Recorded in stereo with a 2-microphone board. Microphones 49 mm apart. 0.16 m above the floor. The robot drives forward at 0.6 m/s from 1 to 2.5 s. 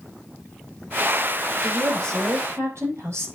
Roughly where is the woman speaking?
Right.